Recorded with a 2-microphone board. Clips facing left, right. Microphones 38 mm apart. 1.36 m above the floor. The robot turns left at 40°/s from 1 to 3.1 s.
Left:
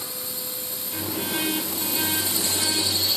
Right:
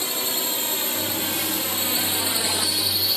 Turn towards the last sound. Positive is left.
turn(degrees=-5)  # may be behind; listen again after turning